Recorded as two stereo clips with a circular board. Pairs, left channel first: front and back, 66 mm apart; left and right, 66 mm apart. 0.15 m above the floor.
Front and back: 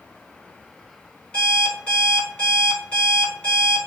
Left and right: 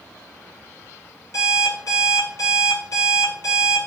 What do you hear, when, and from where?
1.3 s an alarm clock: 70° left, 1.8 m